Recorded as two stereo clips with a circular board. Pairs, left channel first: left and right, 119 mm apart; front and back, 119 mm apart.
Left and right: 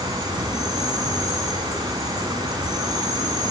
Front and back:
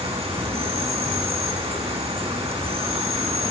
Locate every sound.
0.0 s an insect: 145° right, 2.5 m